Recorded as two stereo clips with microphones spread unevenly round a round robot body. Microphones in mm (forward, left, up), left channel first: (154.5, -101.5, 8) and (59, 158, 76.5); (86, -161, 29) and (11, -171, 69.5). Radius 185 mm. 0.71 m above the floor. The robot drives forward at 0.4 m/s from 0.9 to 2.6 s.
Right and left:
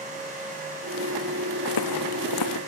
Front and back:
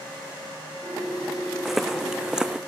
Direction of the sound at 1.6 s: 95° right.